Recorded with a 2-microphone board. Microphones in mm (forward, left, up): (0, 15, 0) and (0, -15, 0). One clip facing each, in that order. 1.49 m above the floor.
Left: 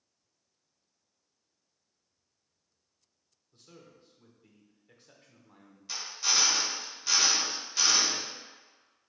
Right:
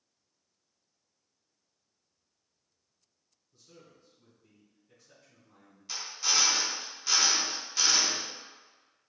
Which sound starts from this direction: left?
A man speaking, at 3.5 s.